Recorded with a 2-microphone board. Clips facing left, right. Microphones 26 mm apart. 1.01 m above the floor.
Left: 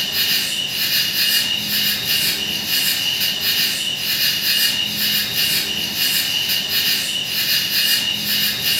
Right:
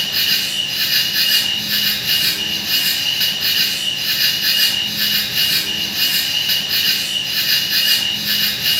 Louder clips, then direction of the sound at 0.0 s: Right 2 dB; 30° right (ahead or behind).